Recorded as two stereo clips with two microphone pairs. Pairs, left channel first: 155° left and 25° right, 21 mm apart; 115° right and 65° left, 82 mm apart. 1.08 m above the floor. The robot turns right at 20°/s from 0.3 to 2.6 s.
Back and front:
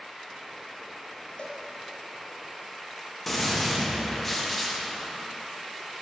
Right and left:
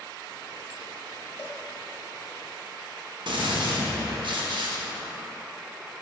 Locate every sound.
1.4 s a cowbell: 175° left, 1.5 m; by 1.6 s straight behind, 1.5 m
3.3 s a gunshot: 75° left, 1.2 m